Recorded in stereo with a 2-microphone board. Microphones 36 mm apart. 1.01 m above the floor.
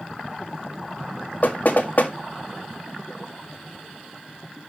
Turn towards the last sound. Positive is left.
turn(degrees=55)  # may be behind; listen again after turning